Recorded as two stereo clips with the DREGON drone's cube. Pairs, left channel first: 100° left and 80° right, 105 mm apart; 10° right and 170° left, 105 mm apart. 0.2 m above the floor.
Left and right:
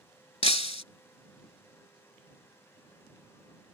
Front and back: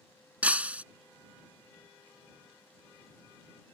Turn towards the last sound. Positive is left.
turn(degrees=95)